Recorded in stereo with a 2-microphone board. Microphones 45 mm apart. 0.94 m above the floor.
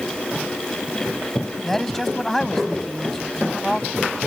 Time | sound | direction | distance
1.6 | a man speaking | 5° left (ahead or behind) | ?